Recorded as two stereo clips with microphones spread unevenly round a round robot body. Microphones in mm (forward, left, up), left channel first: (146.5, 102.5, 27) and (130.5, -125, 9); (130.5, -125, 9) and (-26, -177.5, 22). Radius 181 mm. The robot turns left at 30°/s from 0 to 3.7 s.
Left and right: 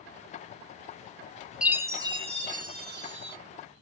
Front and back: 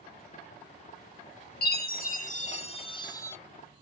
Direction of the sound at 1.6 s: 5° right.